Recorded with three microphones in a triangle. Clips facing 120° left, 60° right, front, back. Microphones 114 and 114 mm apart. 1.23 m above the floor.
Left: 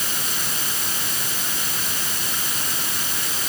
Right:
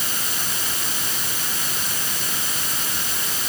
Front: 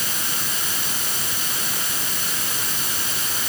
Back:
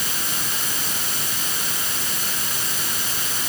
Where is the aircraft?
I don't hear an aircraft.